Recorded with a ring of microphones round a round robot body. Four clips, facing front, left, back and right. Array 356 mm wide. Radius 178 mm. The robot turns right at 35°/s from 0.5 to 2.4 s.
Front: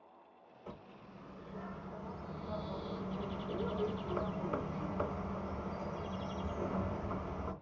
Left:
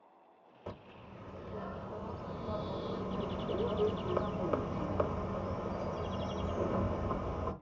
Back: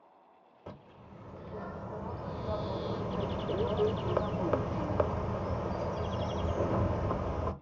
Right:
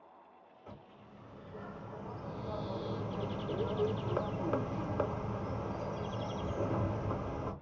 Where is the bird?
120° left, 0.6 m; by 7.5 s straight behind, 0.6 m.